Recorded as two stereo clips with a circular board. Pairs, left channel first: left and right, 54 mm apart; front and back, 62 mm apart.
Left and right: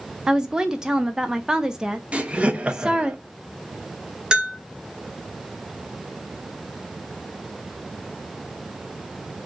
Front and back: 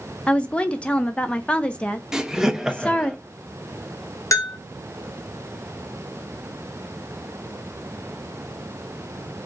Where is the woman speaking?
35° right, 0.5 m.